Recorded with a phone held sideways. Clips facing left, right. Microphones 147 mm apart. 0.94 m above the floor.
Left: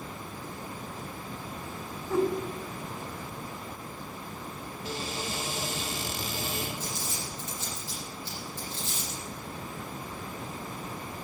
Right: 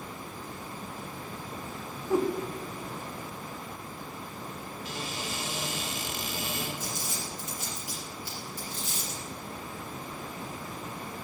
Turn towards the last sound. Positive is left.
turn(degrees=-10)  # may be behind; listen again after turning